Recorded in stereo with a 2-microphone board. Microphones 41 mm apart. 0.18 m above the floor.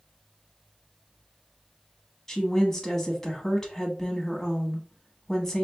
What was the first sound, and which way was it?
A woman speaking, 15° left (ahead or behind).